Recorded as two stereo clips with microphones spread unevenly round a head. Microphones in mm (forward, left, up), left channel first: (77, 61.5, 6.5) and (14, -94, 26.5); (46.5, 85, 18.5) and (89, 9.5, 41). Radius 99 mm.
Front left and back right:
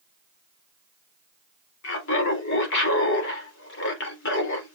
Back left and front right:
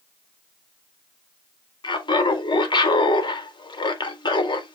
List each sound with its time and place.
1.8 s laughter: 90° left, 1.7 m